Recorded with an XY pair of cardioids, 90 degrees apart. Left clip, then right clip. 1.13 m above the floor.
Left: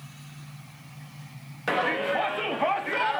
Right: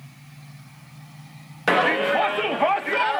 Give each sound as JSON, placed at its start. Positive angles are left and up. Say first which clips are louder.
{"t": 1.7, "sound": "a shout", "louder": "right 6 dB", "azimuth_deg": -60, "distance_m": 1.1}